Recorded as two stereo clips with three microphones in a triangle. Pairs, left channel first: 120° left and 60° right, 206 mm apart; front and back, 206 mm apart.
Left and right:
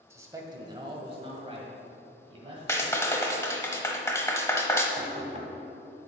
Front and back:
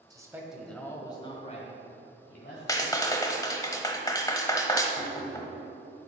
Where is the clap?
60° left, 0.9 m.